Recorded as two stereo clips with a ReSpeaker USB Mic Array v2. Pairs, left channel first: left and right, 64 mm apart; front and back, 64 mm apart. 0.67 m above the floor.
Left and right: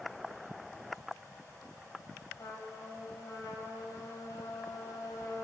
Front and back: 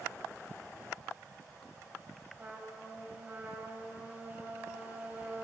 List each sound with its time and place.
2.4 s a trumpet: 115° left, 4.5 m